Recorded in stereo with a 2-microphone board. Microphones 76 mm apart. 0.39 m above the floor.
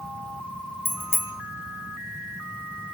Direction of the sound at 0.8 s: 30° right (ahead or behind).